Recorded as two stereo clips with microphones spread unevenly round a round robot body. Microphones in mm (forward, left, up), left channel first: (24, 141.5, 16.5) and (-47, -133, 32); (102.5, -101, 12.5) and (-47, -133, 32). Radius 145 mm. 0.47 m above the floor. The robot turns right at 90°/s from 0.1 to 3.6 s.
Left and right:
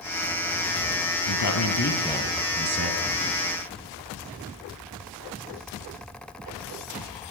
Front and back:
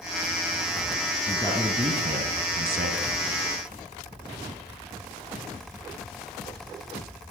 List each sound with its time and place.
1.3 s a man speaking: 75° left, 4 m; by 3.0 s 130° right, 4 m